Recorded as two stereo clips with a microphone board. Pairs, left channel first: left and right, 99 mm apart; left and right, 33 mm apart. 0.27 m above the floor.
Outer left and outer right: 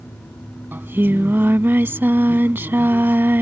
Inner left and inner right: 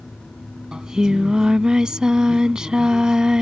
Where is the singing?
20° right (ahead or behind).